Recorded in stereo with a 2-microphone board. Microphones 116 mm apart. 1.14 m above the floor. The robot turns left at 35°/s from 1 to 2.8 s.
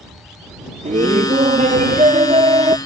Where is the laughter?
75° right; by 2.8 s 140° right.